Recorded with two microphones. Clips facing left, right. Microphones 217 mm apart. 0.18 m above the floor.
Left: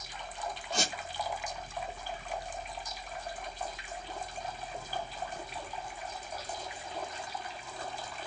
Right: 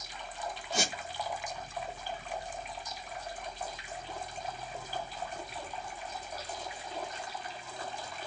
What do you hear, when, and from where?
0.7 s a squeak: 5° right (ahead or behind), 2 m